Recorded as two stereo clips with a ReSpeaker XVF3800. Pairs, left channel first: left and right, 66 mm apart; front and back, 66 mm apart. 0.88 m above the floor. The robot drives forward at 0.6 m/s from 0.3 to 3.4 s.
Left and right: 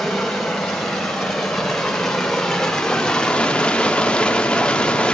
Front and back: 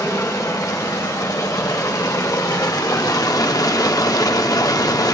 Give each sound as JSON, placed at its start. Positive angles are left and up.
{"t": 0.0, "sound": "running water", "azimuth_deg": 5, "distance_m": 2.5}